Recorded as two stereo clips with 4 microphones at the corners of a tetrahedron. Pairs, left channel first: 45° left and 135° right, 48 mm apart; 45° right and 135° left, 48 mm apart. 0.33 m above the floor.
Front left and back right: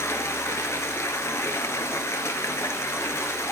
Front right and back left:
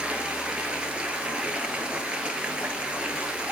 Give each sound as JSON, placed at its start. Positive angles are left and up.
{"t": 0.0, "sound": "running water", "azimuth_deg": 65, "distance_m": 1.2}